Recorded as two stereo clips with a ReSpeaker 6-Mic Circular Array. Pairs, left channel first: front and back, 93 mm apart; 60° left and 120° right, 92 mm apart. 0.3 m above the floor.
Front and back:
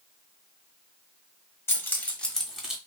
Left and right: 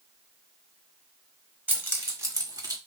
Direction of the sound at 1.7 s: 50° right.